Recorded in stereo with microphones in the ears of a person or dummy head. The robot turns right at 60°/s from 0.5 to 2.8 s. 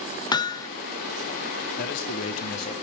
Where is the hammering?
30° left (ahead or behind), 0.8 m; by 0.7 s 20° left (ahead or behind), 0.8 m.